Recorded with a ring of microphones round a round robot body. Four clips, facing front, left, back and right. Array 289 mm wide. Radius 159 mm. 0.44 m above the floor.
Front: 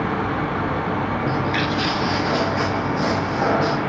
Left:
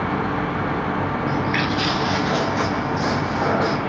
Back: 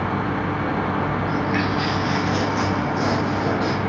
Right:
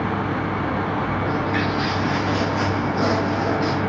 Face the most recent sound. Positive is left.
turn(degrees=75)